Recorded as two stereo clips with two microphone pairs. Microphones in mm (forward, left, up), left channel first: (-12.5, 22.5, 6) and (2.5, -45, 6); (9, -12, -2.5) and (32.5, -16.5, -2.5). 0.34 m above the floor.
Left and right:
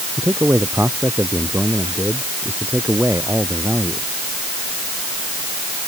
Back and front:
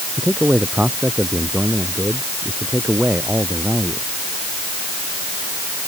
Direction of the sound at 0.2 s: 20° right.